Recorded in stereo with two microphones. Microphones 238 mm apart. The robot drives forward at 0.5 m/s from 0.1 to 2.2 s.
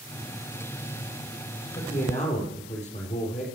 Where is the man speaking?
30° left (ahead or behind), 3.5 m.